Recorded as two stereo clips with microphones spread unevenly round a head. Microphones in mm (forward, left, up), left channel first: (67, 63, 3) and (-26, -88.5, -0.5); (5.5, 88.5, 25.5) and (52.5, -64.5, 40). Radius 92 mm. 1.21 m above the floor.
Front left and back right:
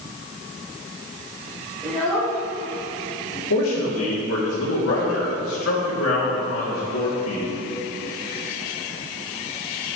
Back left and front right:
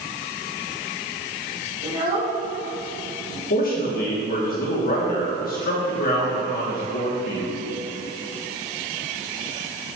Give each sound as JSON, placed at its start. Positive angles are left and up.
{"t": 1.8, "sound": "a child speaking", "azimuth_deg": -25, "distance_m": 2.5}
{"t": 3.5, "sound": "a man speaking", "azimuth_deg": 80, "distance_m": 2.5}